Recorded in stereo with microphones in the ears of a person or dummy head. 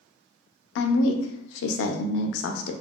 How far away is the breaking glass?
No breaking glass in this recording.